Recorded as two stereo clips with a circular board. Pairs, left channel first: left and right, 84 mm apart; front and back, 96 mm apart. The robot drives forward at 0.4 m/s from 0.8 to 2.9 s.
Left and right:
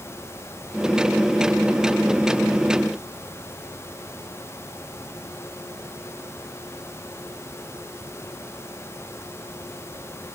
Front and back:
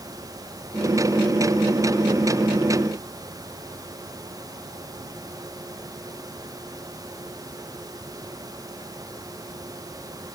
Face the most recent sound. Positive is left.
No sound to turn to.